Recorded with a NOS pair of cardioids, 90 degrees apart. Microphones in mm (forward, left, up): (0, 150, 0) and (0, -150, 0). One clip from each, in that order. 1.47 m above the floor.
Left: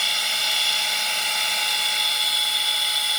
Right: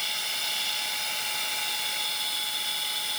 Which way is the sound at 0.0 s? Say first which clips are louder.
Left 8 dB; 55° left.